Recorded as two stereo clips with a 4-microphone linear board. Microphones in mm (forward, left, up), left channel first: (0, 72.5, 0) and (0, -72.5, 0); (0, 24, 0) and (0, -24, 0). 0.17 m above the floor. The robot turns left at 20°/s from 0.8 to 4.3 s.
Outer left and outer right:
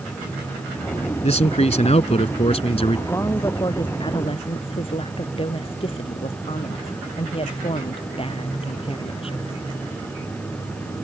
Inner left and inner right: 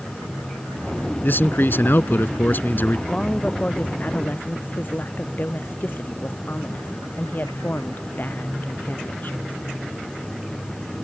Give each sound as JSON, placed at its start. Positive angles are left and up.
{"t": 1.2, "sound": "a man speaking", "azimuth_deg": 100}
{"t": 3.1, "sound": "a woman speaking", "side_deg": 15}